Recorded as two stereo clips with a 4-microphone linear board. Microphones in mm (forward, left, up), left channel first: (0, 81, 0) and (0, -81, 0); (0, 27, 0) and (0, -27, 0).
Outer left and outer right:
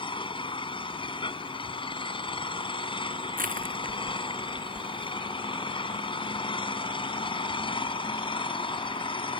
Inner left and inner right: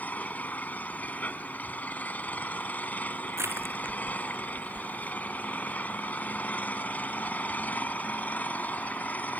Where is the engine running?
35° left (ahead or behind).